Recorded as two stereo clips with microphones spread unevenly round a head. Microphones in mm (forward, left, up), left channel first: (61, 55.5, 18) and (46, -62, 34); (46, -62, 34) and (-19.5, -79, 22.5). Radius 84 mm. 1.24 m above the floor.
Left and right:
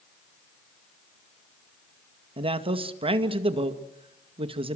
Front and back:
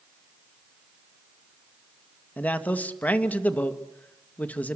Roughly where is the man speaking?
Ahead right.